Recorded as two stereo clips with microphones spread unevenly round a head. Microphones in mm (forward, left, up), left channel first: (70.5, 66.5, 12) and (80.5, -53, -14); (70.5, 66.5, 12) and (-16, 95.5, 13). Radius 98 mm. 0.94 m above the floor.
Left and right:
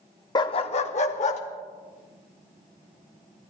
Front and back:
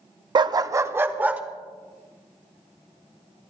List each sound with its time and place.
0.3 s a dog barking: 140° left, 0.6 m; by 1.4 s 90° left, 1.4 m